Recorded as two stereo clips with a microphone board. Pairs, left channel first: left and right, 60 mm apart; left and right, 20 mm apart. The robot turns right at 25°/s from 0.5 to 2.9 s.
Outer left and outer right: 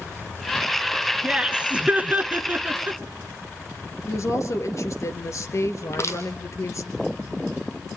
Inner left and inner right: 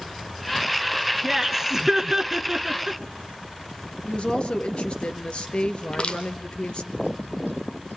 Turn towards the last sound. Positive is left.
turn(degrees=45)  # may be behind; listen again after turning